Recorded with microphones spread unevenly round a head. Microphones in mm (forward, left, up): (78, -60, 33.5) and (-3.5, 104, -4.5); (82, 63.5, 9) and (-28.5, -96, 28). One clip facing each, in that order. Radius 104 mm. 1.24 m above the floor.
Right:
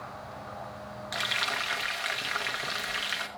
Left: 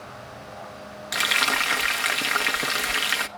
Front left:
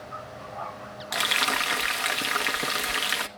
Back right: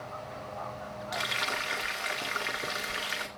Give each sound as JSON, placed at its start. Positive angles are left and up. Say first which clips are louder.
{"t": 1.1, "sound": "frying", "louder": "left 9 dB, front left 7 dB", "azimuth_deg": 90, "distance_m": 1.1}